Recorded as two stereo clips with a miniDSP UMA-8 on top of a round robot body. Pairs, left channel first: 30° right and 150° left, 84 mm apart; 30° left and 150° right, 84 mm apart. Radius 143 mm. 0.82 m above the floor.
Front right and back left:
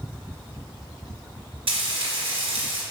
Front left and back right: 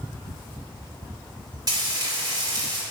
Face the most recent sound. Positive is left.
turn(degrees=160)